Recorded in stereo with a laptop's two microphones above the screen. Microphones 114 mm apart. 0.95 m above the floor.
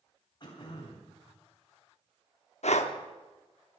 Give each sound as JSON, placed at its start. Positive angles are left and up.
{"t": 0.4, "sound": "throat clearing", "side_deg": 40, "distance_m": 3.0}
{"t": 2.6, "sound": "breathing", "side_deg": 75, "distance_m": 0.9}